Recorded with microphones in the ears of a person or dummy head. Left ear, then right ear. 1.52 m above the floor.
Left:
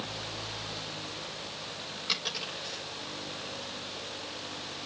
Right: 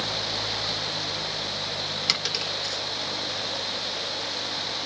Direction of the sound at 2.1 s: 55° right (ahead or behind).